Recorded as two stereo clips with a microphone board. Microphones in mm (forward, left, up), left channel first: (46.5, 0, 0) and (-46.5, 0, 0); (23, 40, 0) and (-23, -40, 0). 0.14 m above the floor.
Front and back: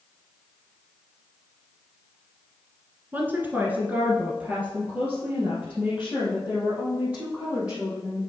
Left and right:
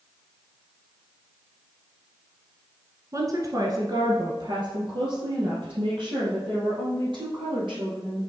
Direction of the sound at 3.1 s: 125° right.